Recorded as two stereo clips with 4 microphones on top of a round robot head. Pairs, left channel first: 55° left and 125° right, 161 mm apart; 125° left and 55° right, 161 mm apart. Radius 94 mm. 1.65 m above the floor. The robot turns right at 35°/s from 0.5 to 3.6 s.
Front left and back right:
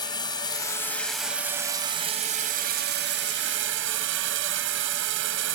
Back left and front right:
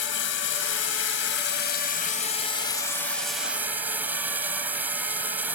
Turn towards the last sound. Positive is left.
turn(degrees=-130)